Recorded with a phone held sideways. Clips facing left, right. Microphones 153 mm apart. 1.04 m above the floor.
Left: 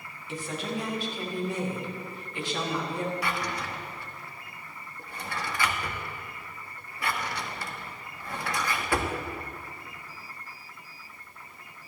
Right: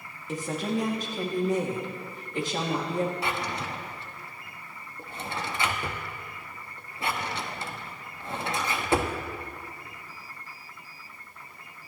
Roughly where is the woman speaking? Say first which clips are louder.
Right 4 dB; right.